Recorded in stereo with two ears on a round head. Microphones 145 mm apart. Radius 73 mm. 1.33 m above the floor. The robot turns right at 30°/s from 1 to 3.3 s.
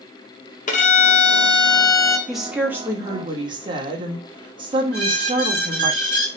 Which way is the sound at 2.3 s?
Straight behind.